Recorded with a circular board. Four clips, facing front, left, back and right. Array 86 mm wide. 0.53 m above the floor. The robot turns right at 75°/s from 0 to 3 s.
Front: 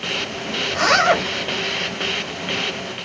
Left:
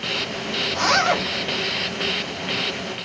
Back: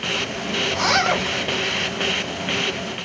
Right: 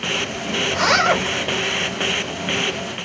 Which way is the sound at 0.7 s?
55° right.